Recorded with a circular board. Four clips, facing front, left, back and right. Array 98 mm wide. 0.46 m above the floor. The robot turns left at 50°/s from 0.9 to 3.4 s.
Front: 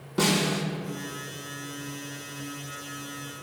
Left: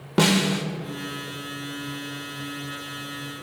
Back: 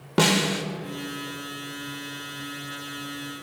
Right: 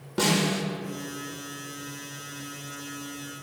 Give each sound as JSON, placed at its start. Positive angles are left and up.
{"t": 0.2, "sound": "a snare drum", "azimuth_deg": 145, "distance_m": 0.7}